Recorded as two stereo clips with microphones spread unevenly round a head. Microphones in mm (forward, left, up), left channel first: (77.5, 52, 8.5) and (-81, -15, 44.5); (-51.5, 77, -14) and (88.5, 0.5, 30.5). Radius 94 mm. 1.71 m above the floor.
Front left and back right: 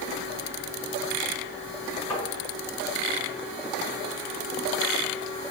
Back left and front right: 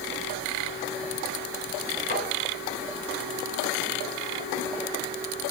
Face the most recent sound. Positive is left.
turn(degrees=100)